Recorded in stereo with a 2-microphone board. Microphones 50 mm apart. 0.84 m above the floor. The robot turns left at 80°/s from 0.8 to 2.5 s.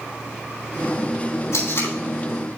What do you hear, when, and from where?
1.5 s tape being pulled: 75° left (ahead or behind), 4 m; by 1.9 s 55° left (ahead or behind), 4 m